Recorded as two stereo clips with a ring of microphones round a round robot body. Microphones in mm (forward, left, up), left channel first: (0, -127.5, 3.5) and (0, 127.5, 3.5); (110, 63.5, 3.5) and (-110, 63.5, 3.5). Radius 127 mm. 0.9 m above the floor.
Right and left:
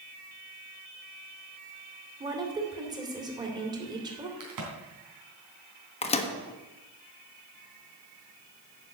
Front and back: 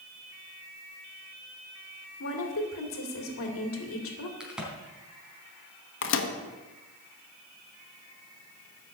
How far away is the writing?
I don't hear writing.